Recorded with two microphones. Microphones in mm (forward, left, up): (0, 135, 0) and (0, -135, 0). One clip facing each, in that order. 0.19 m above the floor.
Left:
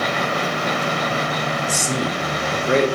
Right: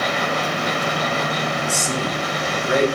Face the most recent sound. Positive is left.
turn(degrees=25)  # may be behind; listen again after turning